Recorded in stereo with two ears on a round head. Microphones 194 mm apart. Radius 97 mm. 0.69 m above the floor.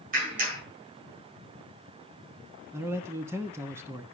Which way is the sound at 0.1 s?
40° right (ahead or behind).